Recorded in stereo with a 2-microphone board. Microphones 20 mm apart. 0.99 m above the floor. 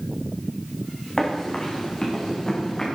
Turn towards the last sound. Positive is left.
turn(degrees=30)  # may be behind; listen again after turning